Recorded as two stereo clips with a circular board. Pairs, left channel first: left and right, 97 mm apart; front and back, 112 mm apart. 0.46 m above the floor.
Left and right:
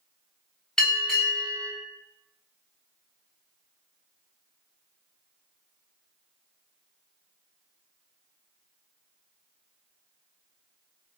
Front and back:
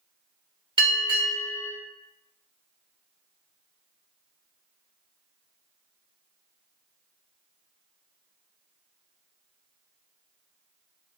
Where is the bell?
170° left, 1.1 m.